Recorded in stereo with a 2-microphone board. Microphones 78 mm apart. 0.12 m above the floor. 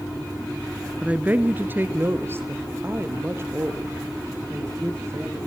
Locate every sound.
1.0 s a woman speaking: 15° right (ahead or behind), 1.2 m; by 5.5 s 35° right (ahead or behind), 5 m